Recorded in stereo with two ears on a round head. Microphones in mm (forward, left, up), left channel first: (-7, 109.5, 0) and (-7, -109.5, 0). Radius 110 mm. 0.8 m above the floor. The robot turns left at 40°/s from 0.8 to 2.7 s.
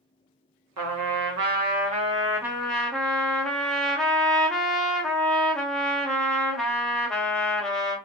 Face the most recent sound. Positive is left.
turn(degrees=175)